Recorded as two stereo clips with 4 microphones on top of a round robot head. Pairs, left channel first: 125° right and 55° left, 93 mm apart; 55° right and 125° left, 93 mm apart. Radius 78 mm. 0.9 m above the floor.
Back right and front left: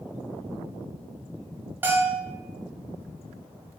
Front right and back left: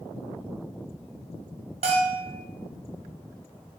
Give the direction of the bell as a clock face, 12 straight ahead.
8 o'clock.